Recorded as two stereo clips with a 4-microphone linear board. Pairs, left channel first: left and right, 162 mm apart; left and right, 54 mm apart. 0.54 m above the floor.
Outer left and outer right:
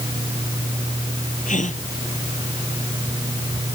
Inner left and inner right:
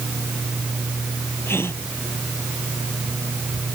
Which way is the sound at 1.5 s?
50° left (ahead or behind).